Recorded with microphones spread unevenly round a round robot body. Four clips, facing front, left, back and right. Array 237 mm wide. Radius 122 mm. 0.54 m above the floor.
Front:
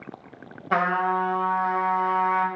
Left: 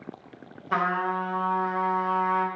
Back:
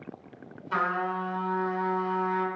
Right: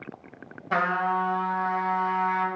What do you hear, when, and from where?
0.7 s a trumpet: 15° right, 1.4 m